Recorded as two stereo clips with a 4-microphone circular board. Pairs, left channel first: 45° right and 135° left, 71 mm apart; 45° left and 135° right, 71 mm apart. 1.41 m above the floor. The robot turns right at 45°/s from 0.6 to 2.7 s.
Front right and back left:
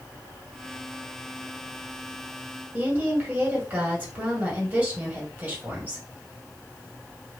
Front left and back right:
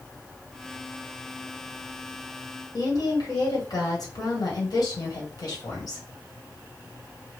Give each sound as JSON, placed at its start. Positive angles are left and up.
{"t": 2.7, "sound": "a woman speaking", "azimuth_deg": 65, "distance_m": 1.6}